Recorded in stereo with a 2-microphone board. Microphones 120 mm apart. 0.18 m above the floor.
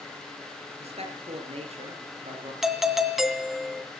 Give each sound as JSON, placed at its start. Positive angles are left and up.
{"t": 0.8, "sound": "a man speaking", "side_deg": -60, "distance_m": 4.5}
{"t": 2.6, "sound": "a doorbell", "side_deg": 0, "distance_m": 1.9}